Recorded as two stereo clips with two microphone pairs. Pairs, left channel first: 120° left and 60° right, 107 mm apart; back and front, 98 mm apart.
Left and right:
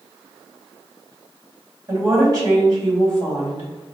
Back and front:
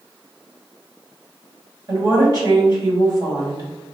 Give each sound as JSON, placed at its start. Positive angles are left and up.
{"t": 1.9, "sound": "a woman speaking", "azimuth_deg": -25, "distance_m": 1.7}